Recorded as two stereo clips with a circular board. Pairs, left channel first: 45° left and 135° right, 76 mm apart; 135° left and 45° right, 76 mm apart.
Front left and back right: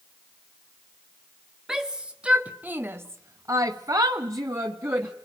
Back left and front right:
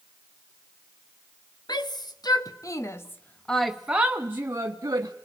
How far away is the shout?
About 1.5 m.